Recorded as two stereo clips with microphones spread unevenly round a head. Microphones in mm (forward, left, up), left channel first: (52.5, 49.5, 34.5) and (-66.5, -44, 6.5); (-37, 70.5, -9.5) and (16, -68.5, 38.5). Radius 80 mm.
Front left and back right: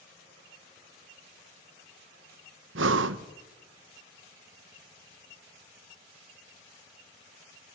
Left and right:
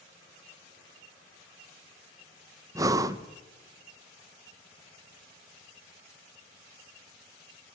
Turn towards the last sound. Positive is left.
turn(degrees=-130)